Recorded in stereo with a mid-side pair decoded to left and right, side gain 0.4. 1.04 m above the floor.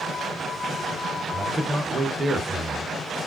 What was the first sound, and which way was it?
A man speaking, 25° right.